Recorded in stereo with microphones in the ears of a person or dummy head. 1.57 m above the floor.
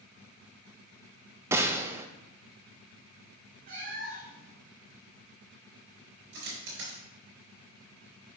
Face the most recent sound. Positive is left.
turn(degrees=-70)  # may be behind; listen again after turning